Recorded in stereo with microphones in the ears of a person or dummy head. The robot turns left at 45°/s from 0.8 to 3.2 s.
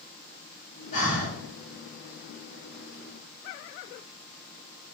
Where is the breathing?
45° left (ahead or behind), 2.0 m; by 1.4 s 60° left (ahead or behind), 2.0 m.